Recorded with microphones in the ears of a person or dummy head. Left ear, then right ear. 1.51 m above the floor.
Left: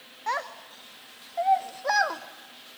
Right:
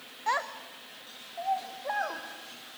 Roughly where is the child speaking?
Centre.